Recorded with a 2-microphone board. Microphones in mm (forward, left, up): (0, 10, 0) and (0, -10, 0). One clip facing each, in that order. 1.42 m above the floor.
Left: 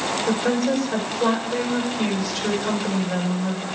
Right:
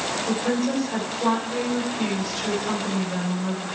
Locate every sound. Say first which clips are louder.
0.3 s a woman speaking: left 3 dB; 45° left (ahead or behind), 6.5 m